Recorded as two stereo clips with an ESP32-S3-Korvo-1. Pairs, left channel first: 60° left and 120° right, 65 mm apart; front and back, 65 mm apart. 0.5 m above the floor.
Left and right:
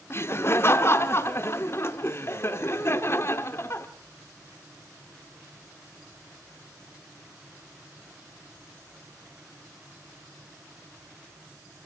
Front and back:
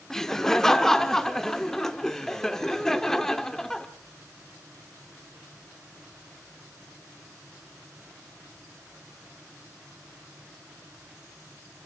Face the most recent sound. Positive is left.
turn(degrees=80)